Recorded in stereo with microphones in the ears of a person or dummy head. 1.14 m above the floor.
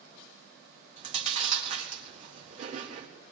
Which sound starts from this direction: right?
Chewing, at 1.0 s.